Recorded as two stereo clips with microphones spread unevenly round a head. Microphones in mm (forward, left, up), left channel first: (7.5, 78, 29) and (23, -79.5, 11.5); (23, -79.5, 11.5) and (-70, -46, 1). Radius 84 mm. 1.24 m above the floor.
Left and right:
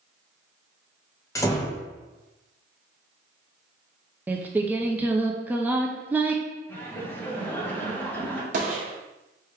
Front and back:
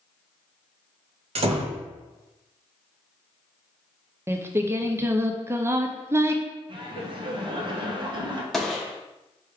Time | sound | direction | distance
1.4 | a door slam | 165° left | 0.8 m
4.3 | singing | 155° right | 0.5 m
6.7 | laughter | 175° left | 1.2 m
8.5 | a gunshot | 110° right | 1.2 m